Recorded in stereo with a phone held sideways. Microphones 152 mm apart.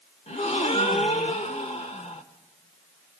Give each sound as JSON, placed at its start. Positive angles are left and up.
{"t": 0.3, "sound": "a gasp", "side_deg": 45, "distance_m": 1.5}